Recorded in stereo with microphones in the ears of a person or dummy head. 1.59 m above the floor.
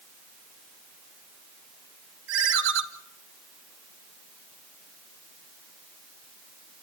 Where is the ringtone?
70° right (ahead or behind), 1.6 m.